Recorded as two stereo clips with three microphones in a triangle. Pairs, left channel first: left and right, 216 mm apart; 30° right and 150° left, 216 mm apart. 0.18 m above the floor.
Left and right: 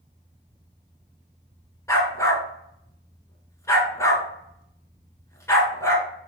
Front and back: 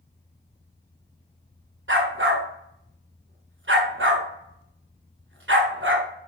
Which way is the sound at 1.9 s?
165° left.